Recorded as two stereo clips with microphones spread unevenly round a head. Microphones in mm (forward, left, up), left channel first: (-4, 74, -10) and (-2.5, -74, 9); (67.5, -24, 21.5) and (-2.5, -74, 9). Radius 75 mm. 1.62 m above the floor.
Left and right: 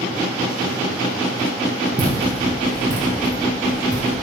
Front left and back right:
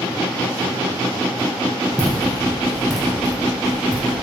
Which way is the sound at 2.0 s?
40° right.